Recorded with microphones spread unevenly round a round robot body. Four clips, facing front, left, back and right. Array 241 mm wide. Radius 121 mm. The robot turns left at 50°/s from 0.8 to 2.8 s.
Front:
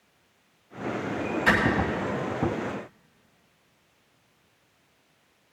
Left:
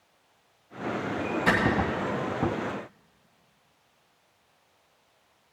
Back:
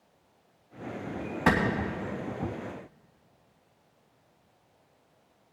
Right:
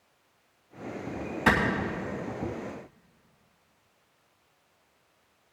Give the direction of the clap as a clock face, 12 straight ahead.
6 o'clock.